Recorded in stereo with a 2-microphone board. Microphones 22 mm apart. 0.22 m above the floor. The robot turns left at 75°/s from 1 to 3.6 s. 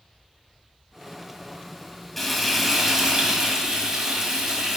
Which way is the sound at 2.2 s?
5° left (ahead or behind).